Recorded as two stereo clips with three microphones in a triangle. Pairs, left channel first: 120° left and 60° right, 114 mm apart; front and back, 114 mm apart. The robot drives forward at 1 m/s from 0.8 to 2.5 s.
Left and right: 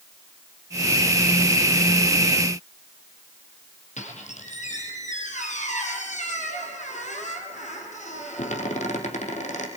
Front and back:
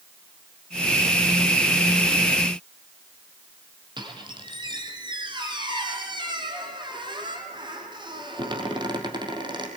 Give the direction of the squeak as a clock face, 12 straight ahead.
8 o'clock.